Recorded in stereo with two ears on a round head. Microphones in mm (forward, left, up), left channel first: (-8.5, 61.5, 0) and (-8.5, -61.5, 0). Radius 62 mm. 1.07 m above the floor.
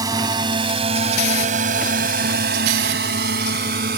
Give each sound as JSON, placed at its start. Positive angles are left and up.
{"t": 0.0, "sound": "a drone", "side_deg": -25}